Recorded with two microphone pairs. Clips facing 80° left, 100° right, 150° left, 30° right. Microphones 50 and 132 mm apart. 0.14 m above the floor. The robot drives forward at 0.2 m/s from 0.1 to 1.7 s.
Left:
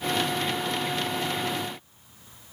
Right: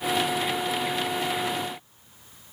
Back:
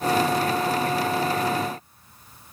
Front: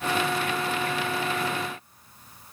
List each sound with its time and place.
Only background noise.